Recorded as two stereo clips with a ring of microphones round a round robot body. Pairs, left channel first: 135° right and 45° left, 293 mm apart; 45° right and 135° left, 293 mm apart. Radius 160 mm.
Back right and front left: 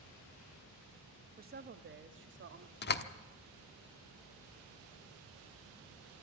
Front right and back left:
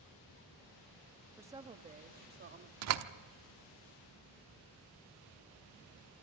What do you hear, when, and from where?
1.4 s a woman speaking: 60° left, 1.0 m; by 2.7 s 90° left, 1.9 m
2.8 s a door slam: 170° left, 1.0 m